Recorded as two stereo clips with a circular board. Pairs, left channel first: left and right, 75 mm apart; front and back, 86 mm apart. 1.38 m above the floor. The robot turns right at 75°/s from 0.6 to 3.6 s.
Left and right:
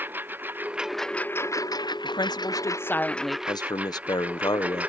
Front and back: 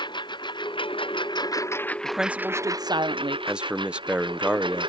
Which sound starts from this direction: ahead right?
A lawn mower, at 0.0 s.